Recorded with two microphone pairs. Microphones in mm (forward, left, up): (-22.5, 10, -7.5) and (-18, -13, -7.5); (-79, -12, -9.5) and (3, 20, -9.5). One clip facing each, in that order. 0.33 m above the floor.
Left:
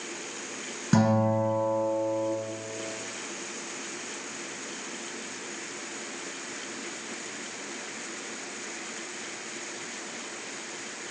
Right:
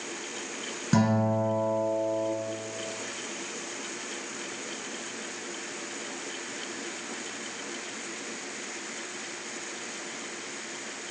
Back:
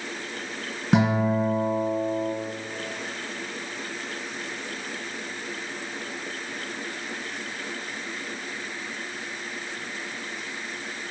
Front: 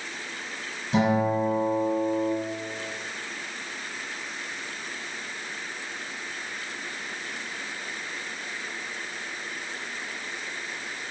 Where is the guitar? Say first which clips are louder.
Left 1 dB, back 1 dB; 175° right, 1.5 m.